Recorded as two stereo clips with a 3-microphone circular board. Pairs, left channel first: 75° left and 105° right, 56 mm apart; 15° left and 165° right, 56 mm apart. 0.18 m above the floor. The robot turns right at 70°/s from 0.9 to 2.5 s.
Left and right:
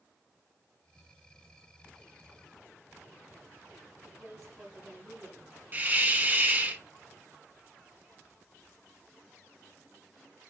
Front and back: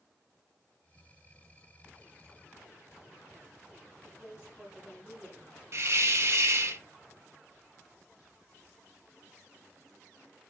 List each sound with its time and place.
4.0 s a woman speaking: 100° right, 3.5 m
5.7 s a hiss: 155° right, 0.5 m